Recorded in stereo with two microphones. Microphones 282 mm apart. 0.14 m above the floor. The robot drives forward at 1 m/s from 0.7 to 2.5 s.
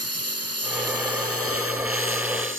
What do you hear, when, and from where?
0.0 s a lawn mower: 60° right (ahead or behind); by 2.6 s 45° right (ahead or behind)